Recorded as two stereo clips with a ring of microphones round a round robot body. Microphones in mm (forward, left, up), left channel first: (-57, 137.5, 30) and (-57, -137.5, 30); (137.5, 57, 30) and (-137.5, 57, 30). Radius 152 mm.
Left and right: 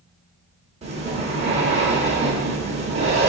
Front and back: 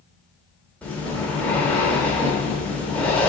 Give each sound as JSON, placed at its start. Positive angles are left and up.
{"t": 0.8, "sound": "breathing", "azimuth_deg": -75, "distance_m": 1.0}